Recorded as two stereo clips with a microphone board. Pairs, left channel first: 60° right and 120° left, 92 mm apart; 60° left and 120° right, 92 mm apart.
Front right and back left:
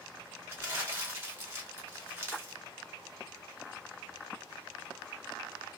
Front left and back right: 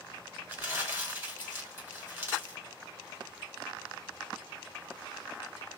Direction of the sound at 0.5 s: 175° left.